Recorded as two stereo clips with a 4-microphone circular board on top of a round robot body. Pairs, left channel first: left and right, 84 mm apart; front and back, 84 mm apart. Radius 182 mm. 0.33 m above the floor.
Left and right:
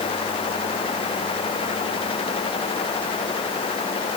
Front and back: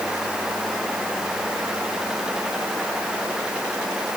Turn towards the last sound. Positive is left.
No sound to turn to.